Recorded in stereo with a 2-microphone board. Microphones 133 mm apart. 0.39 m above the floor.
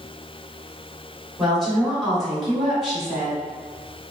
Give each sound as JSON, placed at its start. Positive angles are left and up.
{"t": 1.4, "sound": "a woman speaking", "side_deg": 0, "distance_m": 1.5}